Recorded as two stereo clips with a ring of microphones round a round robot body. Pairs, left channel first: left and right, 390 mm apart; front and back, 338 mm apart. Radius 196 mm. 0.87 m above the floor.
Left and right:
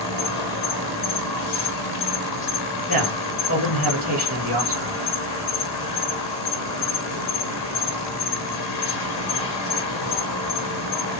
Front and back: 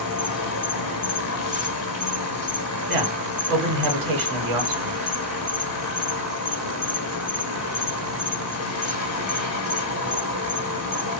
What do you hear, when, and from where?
0.0 s an insect: 45° left, 0.9 m
2.9 s a man speaking: 160° right, 1.2 m